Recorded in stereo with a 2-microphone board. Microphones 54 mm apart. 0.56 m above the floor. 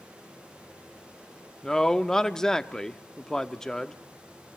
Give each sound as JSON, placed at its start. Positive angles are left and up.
{"t": 1.6, "sound": "a man speaking", "side_deg": 15, "distance_m": 0.7}